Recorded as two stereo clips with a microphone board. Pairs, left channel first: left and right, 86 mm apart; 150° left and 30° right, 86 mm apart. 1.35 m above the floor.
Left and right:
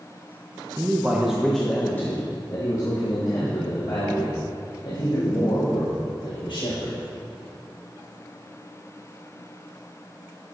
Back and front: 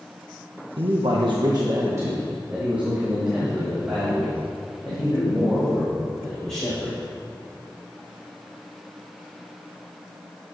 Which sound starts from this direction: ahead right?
A man speaking, at 0.8 s.